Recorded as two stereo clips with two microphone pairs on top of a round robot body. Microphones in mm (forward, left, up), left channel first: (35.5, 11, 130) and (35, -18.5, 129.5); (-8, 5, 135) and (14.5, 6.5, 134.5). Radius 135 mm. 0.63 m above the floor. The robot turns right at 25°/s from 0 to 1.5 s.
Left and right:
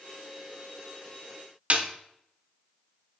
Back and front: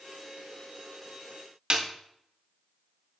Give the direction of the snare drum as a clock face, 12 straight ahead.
2 o'clock.